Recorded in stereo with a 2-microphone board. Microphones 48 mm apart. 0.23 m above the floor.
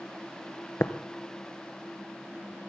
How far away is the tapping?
About 0.7 m.